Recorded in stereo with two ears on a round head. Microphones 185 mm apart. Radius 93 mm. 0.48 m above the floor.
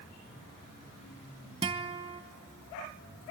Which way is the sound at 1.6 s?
25° right (ahead or behind).